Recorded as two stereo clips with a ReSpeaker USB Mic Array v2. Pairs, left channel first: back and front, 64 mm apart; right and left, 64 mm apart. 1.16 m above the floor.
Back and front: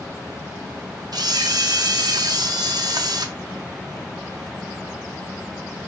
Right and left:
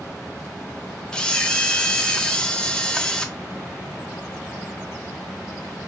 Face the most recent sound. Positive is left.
turn(degrees=-15)